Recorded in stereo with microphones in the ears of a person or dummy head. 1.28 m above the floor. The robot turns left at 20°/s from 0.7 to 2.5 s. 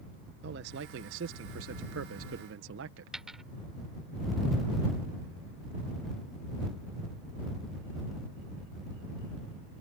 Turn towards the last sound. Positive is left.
turn(degrees=-5)  # may be behind; listen again after turning